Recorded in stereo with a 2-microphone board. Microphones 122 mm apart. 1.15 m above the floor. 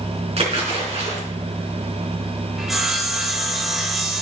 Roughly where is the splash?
Right.